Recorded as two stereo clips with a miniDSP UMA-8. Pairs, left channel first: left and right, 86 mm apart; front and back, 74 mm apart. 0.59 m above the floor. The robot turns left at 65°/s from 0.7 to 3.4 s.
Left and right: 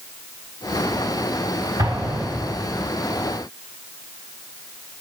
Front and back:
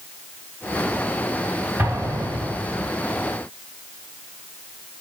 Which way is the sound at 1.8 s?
120° right.